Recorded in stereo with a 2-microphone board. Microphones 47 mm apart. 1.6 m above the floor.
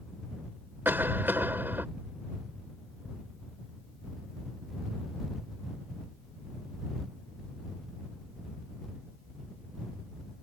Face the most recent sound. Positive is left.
turn(degrees=-40)  # may be behind; listen again after turning